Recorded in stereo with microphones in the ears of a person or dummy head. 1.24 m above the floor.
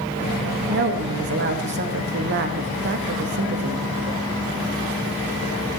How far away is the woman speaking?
About 1.5 m.